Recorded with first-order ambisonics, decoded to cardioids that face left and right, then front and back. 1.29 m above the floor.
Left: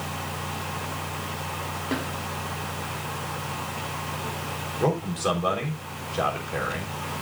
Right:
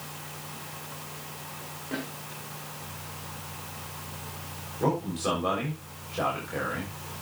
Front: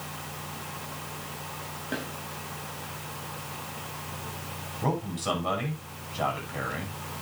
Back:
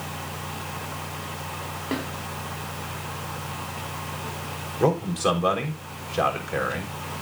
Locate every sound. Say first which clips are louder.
1.9 s a snare drum: left 4 dB, back 4 dB; 145° left, 4.5 m
4.8 s a man speaking: left 2 dB, back 8 dB; 170° left, 6.5 m